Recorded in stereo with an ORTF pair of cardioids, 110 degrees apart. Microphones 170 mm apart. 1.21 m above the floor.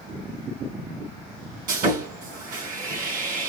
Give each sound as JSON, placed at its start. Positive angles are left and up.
{"t": 1.7, "sound": "sawing", "azimuth_deg": -55, "distance_m": 3.0}